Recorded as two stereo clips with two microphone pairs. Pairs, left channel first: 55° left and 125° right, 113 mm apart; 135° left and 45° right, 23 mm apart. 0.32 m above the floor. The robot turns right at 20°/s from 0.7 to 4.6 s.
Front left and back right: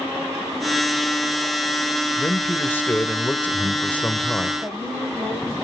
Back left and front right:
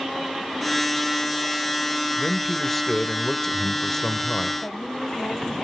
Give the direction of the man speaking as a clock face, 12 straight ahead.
10 o'clock.